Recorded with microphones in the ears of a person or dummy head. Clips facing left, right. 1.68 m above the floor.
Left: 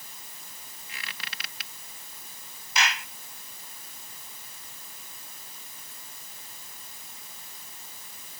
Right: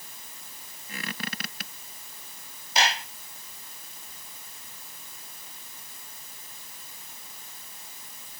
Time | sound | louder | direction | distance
0.9 | a squeak | right 10 dB | 40° right (ahead or behind) | ?
2.8 | a clap | right 3 dB | 35° right (ahead or behind) | ?